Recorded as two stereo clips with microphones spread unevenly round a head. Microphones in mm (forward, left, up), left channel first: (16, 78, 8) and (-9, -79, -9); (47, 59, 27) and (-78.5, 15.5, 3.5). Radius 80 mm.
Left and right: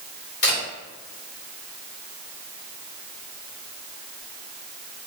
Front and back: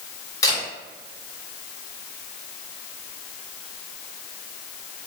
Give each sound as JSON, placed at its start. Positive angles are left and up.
{"t": 0.4, "sound": "a camera shutter", "azimuth_deg": 75, "distance_m": 1.5}